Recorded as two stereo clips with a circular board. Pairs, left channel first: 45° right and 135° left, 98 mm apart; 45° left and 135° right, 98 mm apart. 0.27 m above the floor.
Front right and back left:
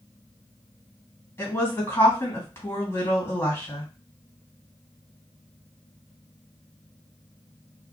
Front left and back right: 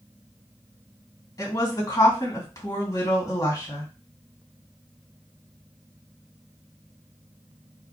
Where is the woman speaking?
10° left, 2 m.